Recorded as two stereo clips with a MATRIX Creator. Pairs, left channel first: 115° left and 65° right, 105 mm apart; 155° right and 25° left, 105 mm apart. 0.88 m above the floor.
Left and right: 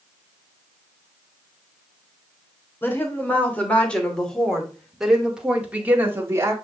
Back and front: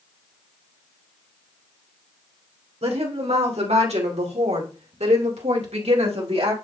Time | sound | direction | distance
2.8 | a woman speaking | 40° left | 3 m